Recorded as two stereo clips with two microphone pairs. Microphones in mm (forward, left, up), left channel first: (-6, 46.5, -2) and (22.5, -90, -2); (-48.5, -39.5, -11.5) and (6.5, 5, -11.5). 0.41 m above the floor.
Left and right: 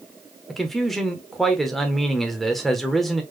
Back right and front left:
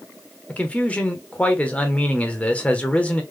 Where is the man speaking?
170° right, 0.9 m.